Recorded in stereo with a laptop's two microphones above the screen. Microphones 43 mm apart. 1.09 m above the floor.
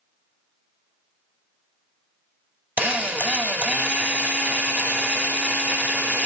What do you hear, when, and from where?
2.8 s a drill: 35° right (ahead or behind), 1.7 m